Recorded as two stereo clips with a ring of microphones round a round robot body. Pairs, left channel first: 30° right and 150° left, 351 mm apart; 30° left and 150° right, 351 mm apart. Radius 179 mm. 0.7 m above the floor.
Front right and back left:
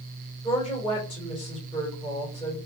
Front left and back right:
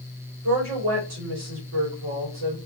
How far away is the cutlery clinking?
I don't hear cutlery clinking.